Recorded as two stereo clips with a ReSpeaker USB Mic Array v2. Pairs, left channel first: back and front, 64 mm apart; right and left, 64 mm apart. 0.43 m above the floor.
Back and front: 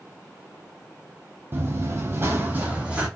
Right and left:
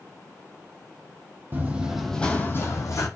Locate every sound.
1.5 s running footsteps: 40° left, 0.6 m; by 3.1 s 70° right, 0.8 m